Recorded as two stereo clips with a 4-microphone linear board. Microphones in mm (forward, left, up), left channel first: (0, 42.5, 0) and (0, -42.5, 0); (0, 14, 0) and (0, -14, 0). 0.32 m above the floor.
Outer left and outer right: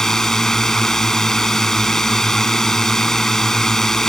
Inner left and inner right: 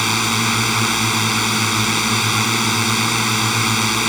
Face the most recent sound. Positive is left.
turn(degrees=5)  # may be behind; listen again after turning